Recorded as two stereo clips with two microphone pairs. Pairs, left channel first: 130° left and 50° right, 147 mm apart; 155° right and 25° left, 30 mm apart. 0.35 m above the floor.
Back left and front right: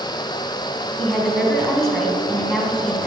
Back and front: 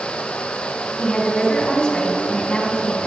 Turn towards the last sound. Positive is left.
turn(degrees=-140)